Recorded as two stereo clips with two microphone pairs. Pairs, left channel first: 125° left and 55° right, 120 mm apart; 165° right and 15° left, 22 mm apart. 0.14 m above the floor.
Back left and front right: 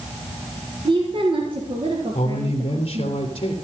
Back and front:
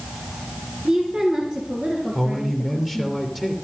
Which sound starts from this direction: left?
A man speaking, at 2.1 s.